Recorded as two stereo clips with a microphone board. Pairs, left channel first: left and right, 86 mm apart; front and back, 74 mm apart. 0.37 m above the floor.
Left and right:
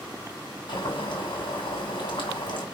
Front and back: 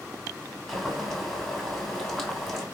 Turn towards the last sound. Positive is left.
turn(degrees=85)